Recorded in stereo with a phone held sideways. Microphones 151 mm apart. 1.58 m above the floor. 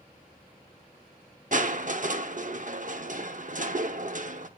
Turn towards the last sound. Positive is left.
turn(degrees=-60)  # may be behind; listen again after turning